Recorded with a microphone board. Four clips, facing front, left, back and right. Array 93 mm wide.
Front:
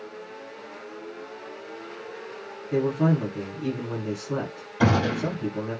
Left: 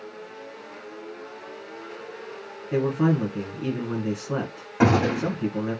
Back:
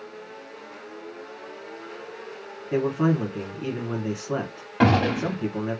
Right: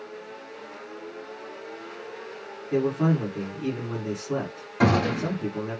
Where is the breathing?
No breathing in this recording.